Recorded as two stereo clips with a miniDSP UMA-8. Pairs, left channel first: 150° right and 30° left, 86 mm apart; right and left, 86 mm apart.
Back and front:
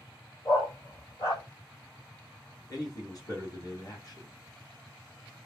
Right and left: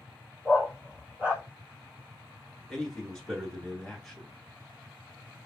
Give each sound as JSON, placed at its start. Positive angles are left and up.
{"t": 0.5, "sound": "a dog barking", "azimuth_deg": 165, "distance_m": 1.6}
{"t": 2.7, "sound": "a man speaking", "azimuth_deg": -170, "distance_m": 2.0}